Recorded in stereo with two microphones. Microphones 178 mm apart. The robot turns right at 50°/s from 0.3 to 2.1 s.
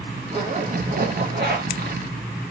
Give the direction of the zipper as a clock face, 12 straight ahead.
5 o'clock.